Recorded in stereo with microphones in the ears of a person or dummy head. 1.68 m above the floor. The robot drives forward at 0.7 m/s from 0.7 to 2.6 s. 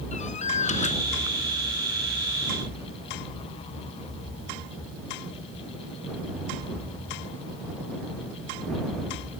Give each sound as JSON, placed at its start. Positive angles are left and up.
{"t": 0.1, "sound": "a door slam", "side_deg": 40}